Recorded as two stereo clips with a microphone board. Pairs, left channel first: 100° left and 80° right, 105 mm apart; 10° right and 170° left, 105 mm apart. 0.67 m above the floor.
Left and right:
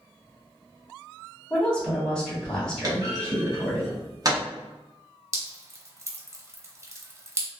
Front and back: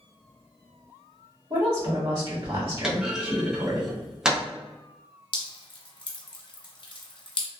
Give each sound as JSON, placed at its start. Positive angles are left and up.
{"t": 1.5, "sound": "a woman speaking", "azimuth_deg": -175, "distance_m": 1.2}
{"t": 2.8, "sound": "a clunk", "azimuth_deg": -110, "distance_m": 0.7}
{"t": 5.3, "sound": "dripping", "azimuth_deg": -20, "distance_m": 0.6}